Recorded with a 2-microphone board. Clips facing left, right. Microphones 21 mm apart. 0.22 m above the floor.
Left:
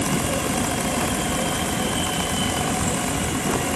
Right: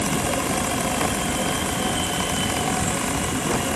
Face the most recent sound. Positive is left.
No sound to turn to.